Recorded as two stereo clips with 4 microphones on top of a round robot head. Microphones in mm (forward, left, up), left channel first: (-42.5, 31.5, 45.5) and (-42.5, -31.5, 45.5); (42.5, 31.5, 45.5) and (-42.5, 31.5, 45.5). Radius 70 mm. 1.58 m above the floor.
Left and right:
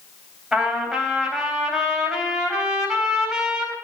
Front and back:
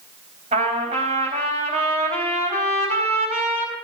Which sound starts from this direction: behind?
A trumpet, at 0.5 s.